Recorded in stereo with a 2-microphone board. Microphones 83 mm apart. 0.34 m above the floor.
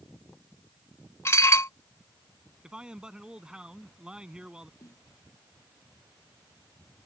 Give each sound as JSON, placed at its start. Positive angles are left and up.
{"t": 1.2, "sound": "dishes clattering", "side_deg": 30}
{"t": 2.6, "sound": "a man speaking", "side_deg": -10}
{"t": 4.8, "sound": "a snare drum", "side_deg": 50}